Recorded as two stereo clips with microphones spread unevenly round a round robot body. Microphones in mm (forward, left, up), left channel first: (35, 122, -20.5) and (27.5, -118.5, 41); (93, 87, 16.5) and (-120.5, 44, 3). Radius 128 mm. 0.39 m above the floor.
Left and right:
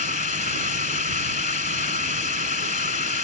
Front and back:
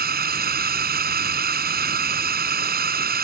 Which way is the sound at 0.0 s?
145° left.